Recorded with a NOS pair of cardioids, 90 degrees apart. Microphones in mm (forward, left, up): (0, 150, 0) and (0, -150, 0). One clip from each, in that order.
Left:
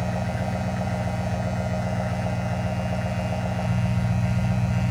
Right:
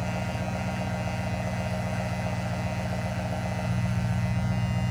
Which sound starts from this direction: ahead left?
An engine running, at 0.0 s.